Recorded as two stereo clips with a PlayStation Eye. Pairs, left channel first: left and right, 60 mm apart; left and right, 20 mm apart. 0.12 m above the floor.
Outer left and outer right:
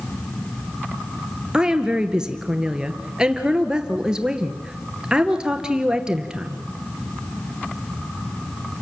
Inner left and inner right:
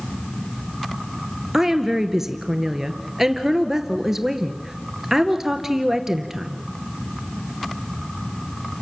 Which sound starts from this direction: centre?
A woman speaking, at 1.5 s.